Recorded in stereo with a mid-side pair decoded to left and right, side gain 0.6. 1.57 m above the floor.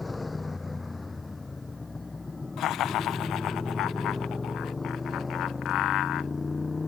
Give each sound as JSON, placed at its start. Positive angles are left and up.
{"t": 0.0, "sound": "a motorcycle", "azimuth_deg": 20}
{"t": 2.6, "sound": "laughter", "azimuth_deg": 60}